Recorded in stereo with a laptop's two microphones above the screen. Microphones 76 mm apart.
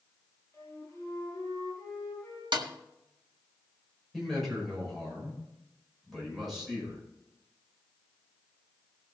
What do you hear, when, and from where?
0.5 s a flute: 20° left (ahead or behind), 6.5 m
2.5 s a snare drum: 70° right (ahead or behind), 1.6 m
4.1 s a man speaking: centre (ahead or behind), 5.5 m